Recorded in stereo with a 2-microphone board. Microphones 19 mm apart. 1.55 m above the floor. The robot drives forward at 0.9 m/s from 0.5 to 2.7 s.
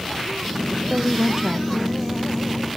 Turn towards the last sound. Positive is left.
turn(degrees=-15)  # may be behind; listen again after turning